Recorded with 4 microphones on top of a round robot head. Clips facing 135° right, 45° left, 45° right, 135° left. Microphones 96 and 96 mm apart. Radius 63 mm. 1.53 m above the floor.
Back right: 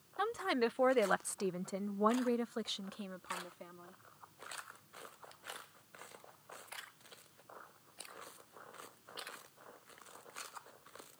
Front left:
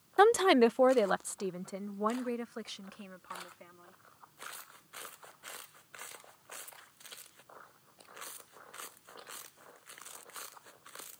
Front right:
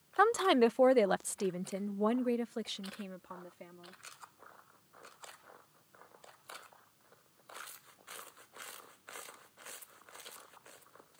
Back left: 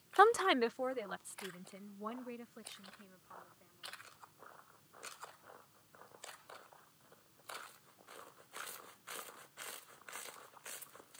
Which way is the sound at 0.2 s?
60° left.